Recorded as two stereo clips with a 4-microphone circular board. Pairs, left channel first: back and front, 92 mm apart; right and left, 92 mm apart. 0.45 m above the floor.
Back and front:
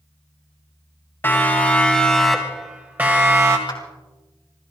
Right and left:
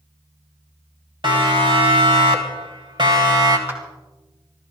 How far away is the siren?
About 3.5 m.